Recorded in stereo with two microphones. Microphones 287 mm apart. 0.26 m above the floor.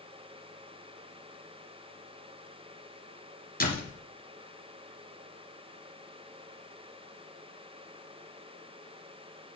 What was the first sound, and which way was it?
A door slam, 30° left (ahead or behind).